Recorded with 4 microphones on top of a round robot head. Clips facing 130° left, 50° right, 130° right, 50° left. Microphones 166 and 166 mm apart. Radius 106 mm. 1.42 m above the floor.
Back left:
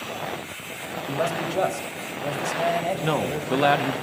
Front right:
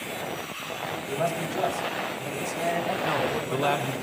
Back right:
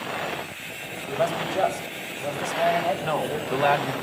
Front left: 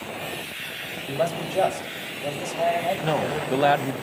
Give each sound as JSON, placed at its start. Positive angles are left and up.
{"t": 1.1, "sound": "a man speaking", "azimuth_deg": 110, "distance_m": 3.5}
{"t": 3.0, "sound": "a man speaking", "azimuth_deg": 110, "distance_m": 1.3}